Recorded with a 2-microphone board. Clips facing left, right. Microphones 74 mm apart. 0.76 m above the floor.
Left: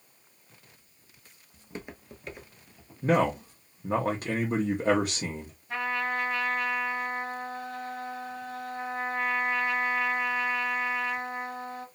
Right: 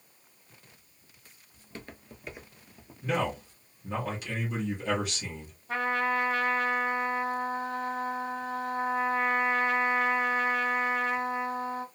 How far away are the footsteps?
About 0.8 m.